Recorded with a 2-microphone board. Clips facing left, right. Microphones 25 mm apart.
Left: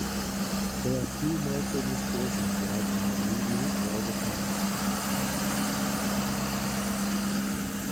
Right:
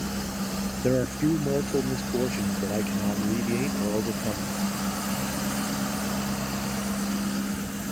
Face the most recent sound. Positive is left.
turn(degrees=-60)  # may be behind; listen again after turning